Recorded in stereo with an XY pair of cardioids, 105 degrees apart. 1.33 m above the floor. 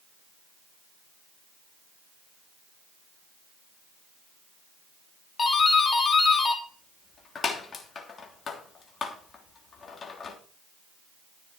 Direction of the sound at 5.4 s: 45° left.